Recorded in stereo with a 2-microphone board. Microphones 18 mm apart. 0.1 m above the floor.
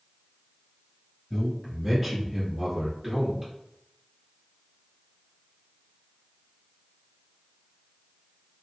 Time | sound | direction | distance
1.3 | a man speaking | 5° left (ahead or behind) | 1.7 m